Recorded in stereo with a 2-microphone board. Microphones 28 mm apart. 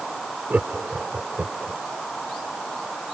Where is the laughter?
75° right (ahead or behind); by 1.8 s 55° right (ahead or behind).